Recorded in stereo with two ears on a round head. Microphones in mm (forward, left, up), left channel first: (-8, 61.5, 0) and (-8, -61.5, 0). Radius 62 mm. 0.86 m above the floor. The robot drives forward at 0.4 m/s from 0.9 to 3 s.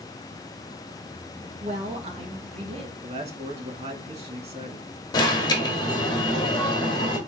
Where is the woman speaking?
50° right (ahead or behind), 0.9 m; by 2.9 s 40° right (ahead or behind), 1.0 m.